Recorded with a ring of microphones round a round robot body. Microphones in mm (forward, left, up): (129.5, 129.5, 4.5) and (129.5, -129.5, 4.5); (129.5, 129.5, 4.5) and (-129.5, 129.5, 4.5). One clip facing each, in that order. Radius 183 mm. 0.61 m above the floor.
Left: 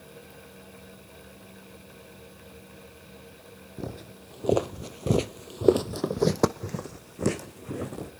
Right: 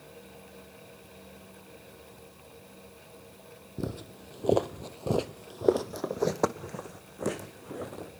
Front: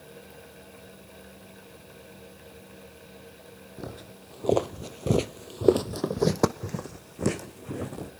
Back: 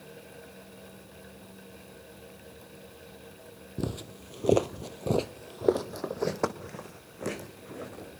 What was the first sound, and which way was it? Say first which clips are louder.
Footsteps: right 2 dB, back 6 dB; 155° right.